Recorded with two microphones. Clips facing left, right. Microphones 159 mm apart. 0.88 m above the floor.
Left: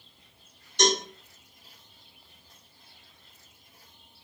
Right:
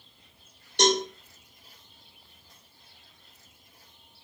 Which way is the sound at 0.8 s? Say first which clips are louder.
Right 2 dB; 65° right (ahead or behind).